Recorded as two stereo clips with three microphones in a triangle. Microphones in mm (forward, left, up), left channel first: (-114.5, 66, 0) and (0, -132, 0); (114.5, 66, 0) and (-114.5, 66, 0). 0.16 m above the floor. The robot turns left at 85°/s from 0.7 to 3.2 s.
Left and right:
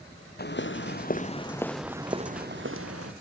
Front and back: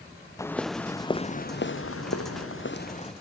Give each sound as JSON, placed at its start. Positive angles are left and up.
{"t": 0.4, "sound": "footsteps", "azimuth_deg": 75}